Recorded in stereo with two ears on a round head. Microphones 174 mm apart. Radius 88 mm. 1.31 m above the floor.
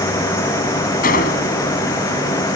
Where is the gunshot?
45° left (ahead or behind).